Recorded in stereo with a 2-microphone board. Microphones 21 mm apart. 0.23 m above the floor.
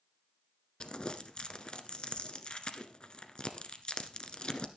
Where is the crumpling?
50° left (ahead or behind), 1.1 m.